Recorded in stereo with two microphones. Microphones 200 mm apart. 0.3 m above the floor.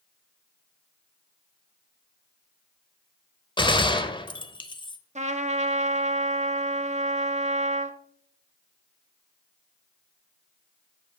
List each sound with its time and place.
3.6 s a gunshot: 25° left (ahead or behind), 0.6 m
5.2 s a trumpet: 40° right (ahead or behind), 0.6 m